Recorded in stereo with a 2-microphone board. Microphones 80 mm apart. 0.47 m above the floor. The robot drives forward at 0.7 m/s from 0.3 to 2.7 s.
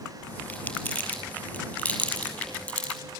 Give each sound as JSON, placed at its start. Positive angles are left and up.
{"t": 0.5, "sound": "crumpling", "side_deg": 15, "distance_m": 5.5}